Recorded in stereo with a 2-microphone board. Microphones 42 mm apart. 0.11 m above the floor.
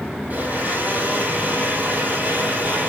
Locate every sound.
0.3 s a blender: 40° right (ahead or behind), 2 m